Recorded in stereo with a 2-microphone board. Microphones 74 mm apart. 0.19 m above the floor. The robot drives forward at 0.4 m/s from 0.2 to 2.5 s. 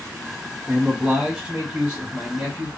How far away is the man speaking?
About 1.1 m.